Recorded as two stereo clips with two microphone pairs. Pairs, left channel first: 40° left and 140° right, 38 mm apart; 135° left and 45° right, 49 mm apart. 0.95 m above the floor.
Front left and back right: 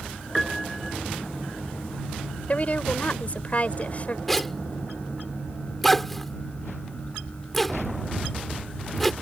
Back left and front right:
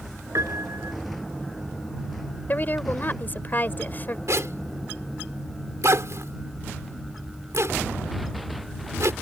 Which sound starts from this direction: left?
A woman speaking, at 2.5 s.